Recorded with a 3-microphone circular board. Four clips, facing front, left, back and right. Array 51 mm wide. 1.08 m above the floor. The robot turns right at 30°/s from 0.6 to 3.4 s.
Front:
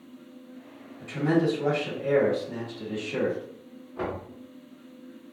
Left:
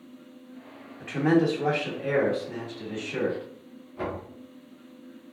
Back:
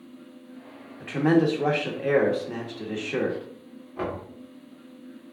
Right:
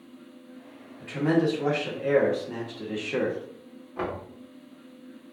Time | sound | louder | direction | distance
1.0 | a man speaking | left 1 dB, back 3 dB | 160° left | 1.3 m
4.0 | knocking | right 1 dB, back 1 dB | 110° right | 2.5 m